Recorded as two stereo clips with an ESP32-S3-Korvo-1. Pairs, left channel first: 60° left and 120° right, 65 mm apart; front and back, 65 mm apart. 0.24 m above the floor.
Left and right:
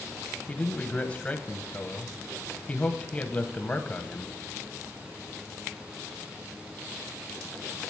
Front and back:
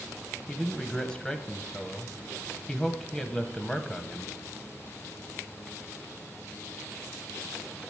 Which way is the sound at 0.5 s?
55° left.